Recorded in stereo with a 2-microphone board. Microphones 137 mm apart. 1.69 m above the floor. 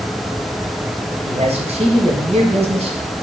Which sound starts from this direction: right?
A man speaking, at 1.3 s.